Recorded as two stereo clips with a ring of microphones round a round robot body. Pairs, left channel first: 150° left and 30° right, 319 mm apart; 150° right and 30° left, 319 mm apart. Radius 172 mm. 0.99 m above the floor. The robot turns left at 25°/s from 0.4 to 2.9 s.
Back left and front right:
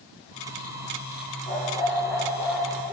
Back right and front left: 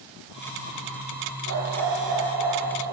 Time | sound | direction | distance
1.5 | a dog barking | 85° left | 7 m